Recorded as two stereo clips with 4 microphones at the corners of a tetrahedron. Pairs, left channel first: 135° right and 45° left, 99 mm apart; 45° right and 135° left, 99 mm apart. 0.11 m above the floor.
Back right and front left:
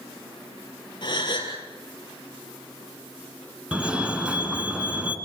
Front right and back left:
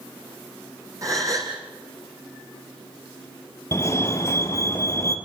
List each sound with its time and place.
1.0 s a gasp: 175° right, 3.5 m
3.7 s a fire alarm: 25° right, 2 m